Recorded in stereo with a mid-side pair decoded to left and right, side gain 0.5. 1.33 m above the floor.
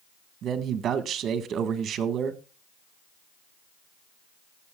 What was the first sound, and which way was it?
A man speaking, 60° right.